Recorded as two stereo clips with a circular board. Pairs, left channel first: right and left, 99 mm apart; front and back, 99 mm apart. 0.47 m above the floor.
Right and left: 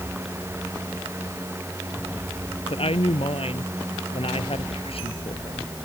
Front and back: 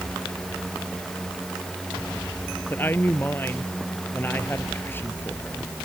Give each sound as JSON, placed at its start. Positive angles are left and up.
{"t": 2.7, "sound": "a woman speaking", "azimuth_deg": -70}